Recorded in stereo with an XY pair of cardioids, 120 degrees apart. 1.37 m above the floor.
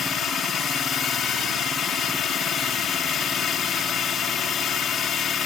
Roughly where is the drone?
Ahead left.